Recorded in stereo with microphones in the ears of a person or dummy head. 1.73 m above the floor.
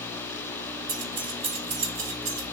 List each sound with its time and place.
0.9 s keys jangling: 25° right (ahead or behind), 1.6 m; by 2.4 s 50° right (ahead or behind), 2 m